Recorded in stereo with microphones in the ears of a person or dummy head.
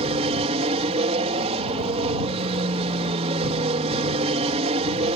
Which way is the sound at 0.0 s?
35° right (ahead or behind).